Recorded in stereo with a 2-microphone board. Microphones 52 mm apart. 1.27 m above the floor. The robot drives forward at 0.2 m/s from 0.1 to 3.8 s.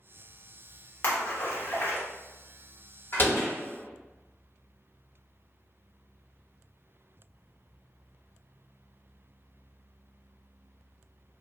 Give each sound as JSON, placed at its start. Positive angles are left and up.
{"t": 1.0, "sound": "a splash", "side_deg": 50, "distance_m": 0.8}
{"t": 3.1, "sound": "a door slam", "side_deg": 40, "distance_m": 1.3}